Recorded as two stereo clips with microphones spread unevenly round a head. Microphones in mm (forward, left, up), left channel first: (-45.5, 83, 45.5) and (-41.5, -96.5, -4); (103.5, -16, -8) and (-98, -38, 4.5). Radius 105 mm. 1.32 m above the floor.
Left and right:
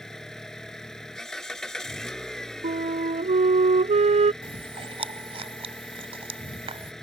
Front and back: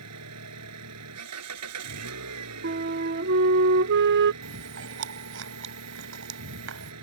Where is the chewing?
150° right.